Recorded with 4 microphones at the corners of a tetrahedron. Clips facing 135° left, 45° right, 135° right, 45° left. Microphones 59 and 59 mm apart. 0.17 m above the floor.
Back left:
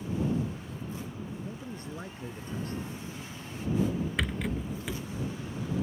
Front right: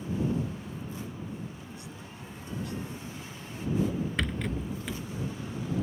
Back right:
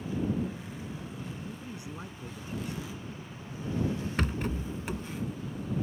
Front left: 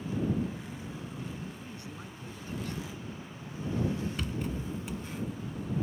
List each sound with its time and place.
1.4 s a man speaking: 160° left
4.2 s a rattle: 140° right